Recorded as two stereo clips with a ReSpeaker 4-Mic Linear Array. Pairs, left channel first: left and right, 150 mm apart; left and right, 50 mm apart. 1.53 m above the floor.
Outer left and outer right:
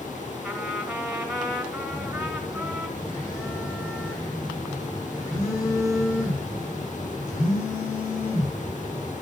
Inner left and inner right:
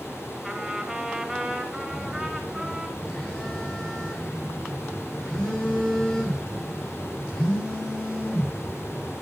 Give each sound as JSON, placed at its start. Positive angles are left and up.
{"t": 0.4, "sound": "a trumpet", "side_deg": -5, "distance_m": 2.0}
{"t": 1.9, "sound": "a phone buzzing", "side_deg": 20, "distance_m": 4.0}